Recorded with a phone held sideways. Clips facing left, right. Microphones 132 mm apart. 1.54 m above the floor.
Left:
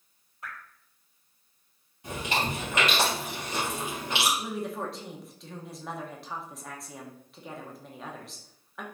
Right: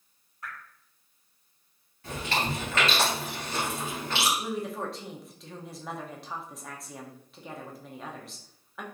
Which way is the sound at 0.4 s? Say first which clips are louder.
Even; 25° left (ahead or behind).